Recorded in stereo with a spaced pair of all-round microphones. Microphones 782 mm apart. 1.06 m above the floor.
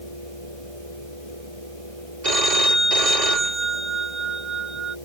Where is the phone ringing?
60° right (ahead or behind).